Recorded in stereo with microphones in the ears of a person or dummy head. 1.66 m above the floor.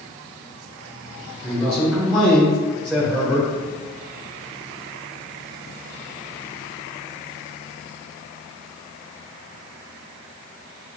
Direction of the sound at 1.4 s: Centre (ahead or behind).